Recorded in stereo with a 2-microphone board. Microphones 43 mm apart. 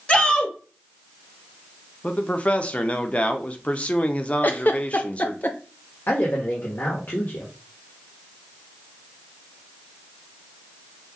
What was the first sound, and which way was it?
A shout, 30° left (ahead or behind).